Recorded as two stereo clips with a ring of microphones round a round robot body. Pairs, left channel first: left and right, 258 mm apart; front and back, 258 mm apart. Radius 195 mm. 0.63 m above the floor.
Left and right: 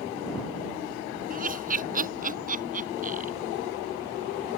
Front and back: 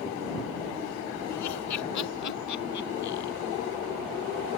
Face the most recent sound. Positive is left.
turn(degrees=-30)